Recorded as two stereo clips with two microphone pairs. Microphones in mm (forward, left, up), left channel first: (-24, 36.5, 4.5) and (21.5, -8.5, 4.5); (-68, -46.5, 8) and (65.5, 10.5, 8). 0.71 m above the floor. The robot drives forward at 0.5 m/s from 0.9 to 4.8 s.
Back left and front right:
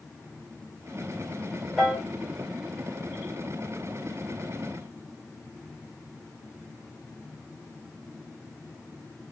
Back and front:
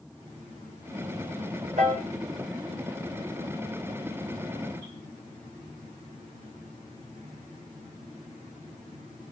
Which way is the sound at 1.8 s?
40° left.